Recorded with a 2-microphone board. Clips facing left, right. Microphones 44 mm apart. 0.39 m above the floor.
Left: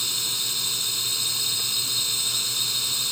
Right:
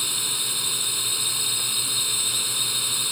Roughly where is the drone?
Centre.